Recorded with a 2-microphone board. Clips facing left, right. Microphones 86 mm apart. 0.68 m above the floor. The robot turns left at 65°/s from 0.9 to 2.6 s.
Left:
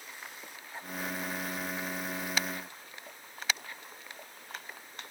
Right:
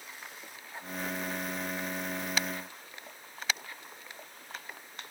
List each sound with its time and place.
Only background noise.